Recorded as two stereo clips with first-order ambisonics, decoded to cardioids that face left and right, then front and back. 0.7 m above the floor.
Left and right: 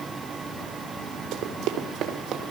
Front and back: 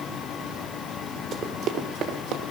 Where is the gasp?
No gasp in this recording.